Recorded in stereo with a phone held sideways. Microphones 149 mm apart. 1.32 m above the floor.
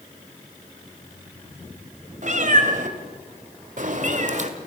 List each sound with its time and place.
2.2 s a cat meowing: 55° right (ahead or behind), 2 m; by 4.5 s 50° right (ahead or behind), 1.5 m